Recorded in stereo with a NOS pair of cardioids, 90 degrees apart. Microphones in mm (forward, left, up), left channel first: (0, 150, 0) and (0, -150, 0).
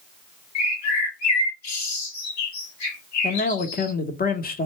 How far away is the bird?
About 1.4 m.